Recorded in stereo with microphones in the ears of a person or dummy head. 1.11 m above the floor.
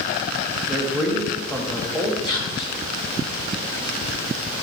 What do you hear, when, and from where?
0.7 s a man speaking: 5° left (ahead or behind), 1.6 m
2.2 s whispering: 25° left (ahead or behind), 1.3 m